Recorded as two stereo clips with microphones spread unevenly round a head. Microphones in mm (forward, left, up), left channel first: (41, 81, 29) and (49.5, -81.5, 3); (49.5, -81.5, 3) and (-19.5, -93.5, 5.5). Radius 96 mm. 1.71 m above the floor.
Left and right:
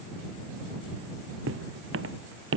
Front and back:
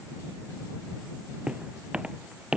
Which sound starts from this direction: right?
Footsteps, at 1.5 s.